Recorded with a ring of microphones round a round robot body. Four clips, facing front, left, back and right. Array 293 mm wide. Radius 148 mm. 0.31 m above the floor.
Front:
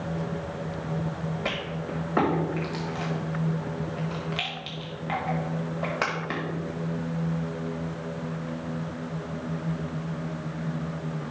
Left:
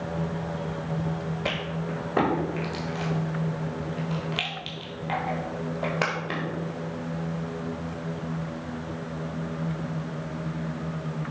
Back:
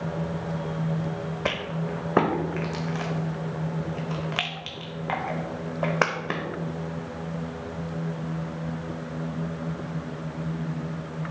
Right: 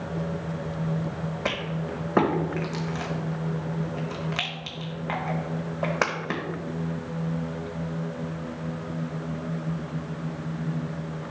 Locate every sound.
1.4 s a rattle: 155° right, 1.2 m